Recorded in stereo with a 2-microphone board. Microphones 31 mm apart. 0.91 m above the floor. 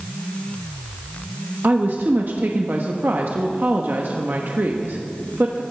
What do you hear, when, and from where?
1.6 s a woman speaking: 60° right (ahead or behind), 1.2 m